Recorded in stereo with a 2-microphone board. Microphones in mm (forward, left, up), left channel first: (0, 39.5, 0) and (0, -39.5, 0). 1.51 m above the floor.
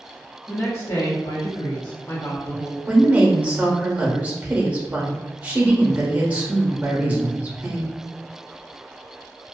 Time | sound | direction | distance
0.5 | a woman speaking | 25° left (ahead or behind) | 0.9 m
2.9 | a woman speaking | 20° right (ahead or behind) | 0.8 m